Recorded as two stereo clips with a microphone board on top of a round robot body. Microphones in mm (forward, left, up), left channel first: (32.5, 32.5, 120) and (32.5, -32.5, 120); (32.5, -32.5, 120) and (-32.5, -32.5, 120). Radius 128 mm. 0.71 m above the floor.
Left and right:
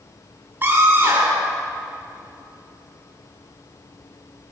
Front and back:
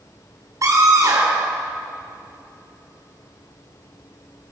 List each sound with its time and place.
0.6 s a scream: 145° right, 3 m